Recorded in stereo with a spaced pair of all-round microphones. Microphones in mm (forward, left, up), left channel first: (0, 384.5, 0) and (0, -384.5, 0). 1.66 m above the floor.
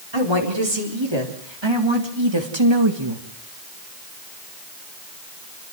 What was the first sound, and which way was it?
A woman speaking, 35° right (ahead or behind).